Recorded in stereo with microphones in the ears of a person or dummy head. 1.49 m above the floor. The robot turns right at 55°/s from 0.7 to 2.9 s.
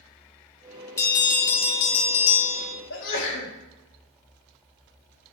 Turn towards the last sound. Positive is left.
turn(degrees=70)  # may be behind; listen again after turning